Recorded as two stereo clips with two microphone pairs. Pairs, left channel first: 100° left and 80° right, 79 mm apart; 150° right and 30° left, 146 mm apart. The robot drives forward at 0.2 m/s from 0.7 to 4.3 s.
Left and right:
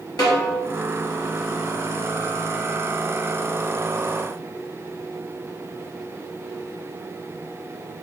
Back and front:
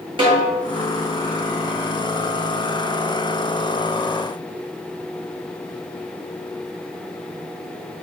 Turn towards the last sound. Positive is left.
turn(degrees=115)